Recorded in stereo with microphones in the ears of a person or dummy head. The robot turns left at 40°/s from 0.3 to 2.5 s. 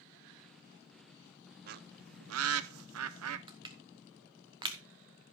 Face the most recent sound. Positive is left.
turn(degrees=-25)  # may be behind; listen again after turning